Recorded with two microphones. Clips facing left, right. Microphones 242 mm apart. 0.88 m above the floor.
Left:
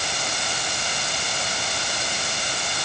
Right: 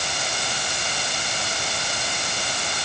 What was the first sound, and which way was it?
Only background noise.